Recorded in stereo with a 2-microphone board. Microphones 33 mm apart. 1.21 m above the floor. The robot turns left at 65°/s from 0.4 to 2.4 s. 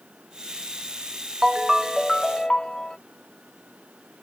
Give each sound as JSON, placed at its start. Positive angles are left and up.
{"t": 1.4, "sound": "a ringtone", "azimuth_deg": -150}